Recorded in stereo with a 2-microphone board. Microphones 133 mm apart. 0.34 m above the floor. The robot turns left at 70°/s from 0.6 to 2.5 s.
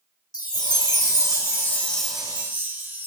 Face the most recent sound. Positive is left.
turn(degrees=-30)